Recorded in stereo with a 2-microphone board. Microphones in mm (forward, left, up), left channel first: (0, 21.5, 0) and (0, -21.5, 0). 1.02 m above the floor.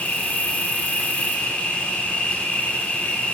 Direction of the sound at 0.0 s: 30° left (ahead or behind).